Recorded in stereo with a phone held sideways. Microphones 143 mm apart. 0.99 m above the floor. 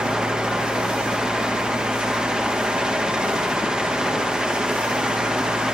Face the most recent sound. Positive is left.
turn(degrees=-5)  # may be behind; listen again after turning